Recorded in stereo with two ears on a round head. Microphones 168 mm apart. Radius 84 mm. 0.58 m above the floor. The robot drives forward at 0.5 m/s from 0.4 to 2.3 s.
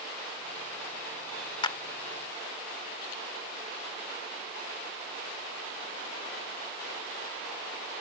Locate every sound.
1.6 s a clap: 25° left (ahead or behind)